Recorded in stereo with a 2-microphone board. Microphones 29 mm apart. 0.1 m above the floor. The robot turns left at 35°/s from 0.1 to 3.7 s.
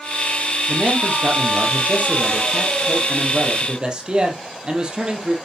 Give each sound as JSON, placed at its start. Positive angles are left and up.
{"t": 0.7, "sound": "a man speaking", "azimuth_deg": -45, "distance_m": 3.5}